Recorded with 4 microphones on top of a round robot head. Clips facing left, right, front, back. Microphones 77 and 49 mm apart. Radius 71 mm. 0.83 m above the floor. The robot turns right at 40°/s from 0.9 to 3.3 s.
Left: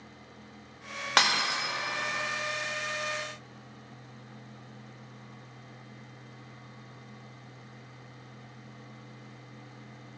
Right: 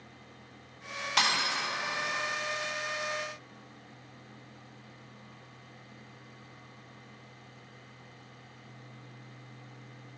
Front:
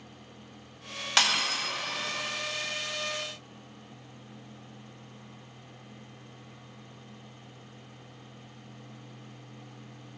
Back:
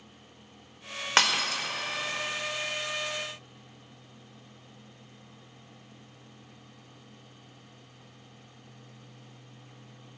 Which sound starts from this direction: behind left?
Breaking glass, at 1.2 s.